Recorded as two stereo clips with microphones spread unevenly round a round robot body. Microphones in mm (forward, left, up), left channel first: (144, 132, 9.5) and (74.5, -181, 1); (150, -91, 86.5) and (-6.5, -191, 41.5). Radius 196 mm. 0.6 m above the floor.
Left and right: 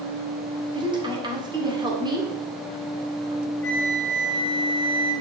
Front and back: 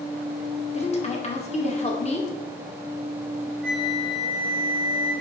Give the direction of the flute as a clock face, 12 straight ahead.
7 o'clock.